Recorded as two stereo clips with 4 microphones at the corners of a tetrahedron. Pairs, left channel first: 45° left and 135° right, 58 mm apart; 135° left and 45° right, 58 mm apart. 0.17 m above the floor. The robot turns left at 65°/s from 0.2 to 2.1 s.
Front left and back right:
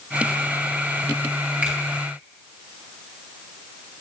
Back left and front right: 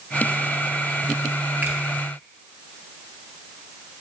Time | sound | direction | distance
1.6 | a finger snap | 80° right | 1.9 m